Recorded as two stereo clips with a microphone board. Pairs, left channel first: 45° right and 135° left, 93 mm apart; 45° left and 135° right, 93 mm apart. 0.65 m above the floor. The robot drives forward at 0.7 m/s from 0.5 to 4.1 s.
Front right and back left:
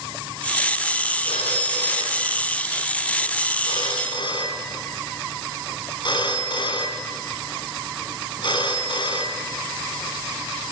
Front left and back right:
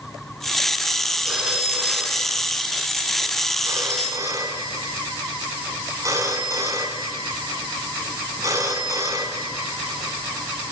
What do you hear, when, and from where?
1.2 s a phone ringing: 55° right, 5 m; by 10.7 s 80° right, 4 m